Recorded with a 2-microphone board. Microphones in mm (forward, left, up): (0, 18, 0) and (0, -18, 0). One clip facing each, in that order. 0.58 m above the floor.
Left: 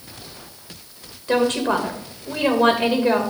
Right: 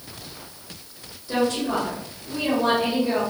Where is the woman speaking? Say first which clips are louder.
Left 4 dB; 65° left (ahead or behind), 2 m.